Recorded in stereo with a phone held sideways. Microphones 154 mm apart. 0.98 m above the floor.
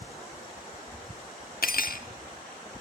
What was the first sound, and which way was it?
Cutlery clinking, 70° left (ahead or behind).